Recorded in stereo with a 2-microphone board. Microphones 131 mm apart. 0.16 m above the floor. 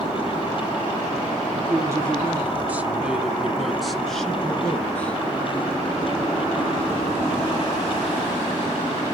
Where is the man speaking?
25° right (ahead or behind), 1.7 m; by 5.2 s 10° left (ahead or behind), 3 m.